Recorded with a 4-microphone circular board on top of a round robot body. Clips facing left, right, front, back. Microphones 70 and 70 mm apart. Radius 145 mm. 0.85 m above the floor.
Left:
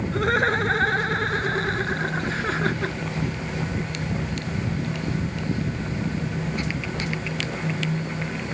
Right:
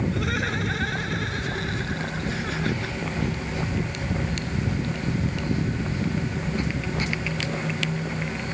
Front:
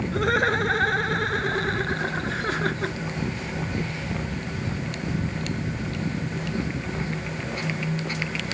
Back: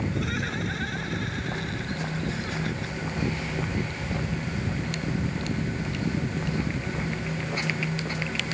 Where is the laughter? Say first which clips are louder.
Left 6 dB, front 8 dB; 40° left.